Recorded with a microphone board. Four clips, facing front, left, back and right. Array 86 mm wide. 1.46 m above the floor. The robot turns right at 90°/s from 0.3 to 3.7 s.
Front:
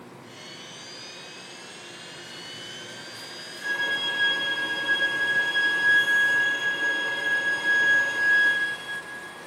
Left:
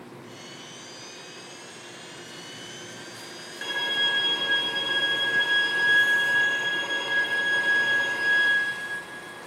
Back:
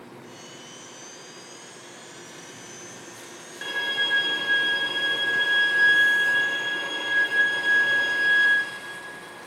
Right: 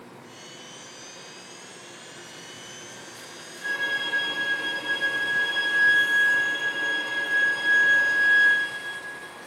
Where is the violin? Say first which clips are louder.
Right 1 dB, even; 130° left, 1.5 m; by 8.5 s 140° left, 1.5 m.